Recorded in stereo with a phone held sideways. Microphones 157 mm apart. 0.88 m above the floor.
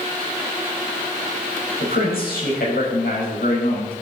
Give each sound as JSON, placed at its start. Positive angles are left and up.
{"t": 1.8, "sound": "a man speaking", "side_deg": 80, "distance_m": 6.0}